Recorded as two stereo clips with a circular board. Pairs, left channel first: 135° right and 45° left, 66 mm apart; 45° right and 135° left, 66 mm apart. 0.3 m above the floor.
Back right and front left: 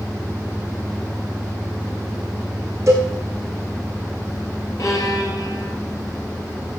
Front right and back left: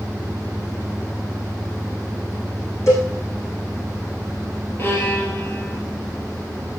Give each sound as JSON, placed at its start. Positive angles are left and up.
{"t": 2.9, "sound": "a cowbell", "azimuth_deg": 0, "distance_m": 5.5}
{"t": 4.8, "sound": "a violin", "azimuth_deg": -100, "distance_m": 3.5}